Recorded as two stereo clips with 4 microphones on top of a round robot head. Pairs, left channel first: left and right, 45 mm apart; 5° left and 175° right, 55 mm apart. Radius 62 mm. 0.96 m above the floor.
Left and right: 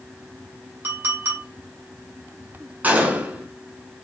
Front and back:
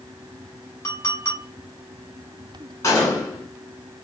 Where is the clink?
55° right, 2.5 m.